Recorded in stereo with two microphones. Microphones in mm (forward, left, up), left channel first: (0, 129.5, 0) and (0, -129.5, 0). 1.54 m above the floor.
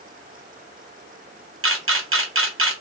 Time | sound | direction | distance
1.6 | a camera shutter | 55° right (ahead or behind) | 0.8 m